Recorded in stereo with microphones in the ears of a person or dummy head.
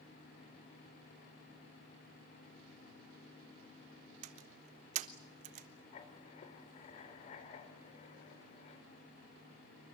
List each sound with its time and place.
4.2 s a door slam: 40° right (ahead or behind), 1.0 m
5.9 s writing: 40° left (ahead or behind), 3.5 m